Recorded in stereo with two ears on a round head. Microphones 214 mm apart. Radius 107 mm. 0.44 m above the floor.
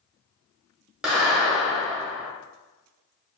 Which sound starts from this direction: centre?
A clap, at 1.0 s.